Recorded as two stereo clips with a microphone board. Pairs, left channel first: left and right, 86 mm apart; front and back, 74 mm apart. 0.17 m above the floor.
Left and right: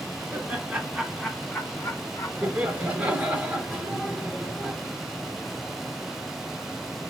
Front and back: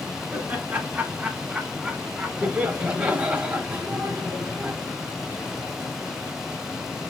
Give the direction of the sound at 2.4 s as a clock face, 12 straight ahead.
4 o'clock.